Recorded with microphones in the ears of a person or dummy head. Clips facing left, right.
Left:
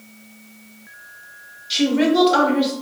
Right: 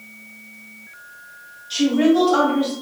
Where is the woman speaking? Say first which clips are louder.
Right 1 dB; 30° left (ahead or behind), 0.9 m.